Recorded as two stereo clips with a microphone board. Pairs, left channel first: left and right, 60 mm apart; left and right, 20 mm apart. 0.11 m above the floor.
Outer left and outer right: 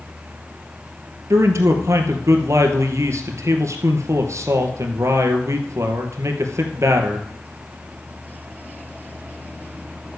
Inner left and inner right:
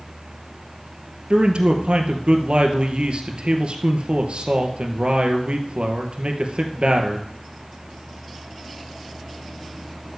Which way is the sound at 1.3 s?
55° right (ahead or behind).